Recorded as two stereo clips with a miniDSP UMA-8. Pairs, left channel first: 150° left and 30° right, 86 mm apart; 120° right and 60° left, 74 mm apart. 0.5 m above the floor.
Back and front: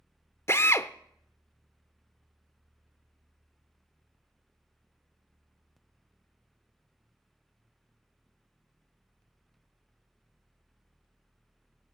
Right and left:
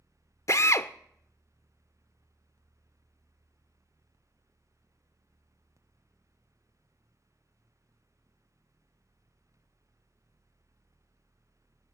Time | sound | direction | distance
0.5 | a drill | 160° right | 0.6 m